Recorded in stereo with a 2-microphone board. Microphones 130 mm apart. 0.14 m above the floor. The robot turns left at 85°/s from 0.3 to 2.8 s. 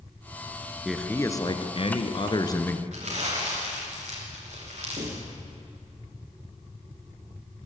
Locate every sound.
0.8 s a man speaking: 175° right, 1.6 m; by 2.8 s 20° left, 1.6 m
2.9 s crumpling: 65° right (ahead or behind), 9.5 m
5.0 s knocking: 60° right (ahead or behind), 7.5 m